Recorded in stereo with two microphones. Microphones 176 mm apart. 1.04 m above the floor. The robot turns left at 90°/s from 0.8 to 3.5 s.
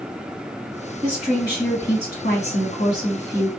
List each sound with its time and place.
1.0 s a woman speaking: 140° right, 1.6 m; by 3.5 s straight ahead, 1.6 m